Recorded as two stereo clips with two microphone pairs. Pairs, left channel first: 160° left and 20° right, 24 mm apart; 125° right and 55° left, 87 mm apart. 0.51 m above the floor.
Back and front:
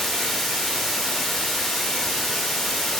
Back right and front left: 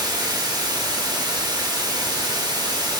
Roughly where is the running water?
Left.